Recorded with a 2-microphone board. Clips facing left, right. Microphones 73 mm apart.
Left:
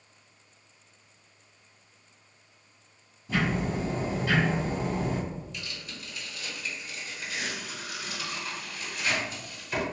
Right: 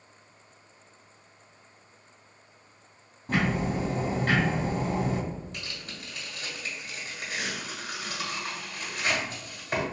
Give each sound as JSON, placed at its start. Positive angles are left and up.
{"t": 3.3, "sound": "ticking", "side_deg": -55, "distance_m": 1.6}
{"t": 5.5, "sound": "tearing paper", "side_deg": -45, "distance_m": 1.8}